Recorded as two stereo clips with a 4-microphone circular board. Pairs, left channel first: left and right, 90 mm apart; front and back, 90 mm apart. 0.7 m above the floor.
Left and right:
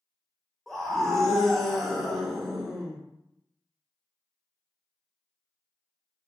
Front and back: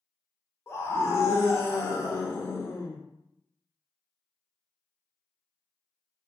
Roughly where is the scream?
Ahead.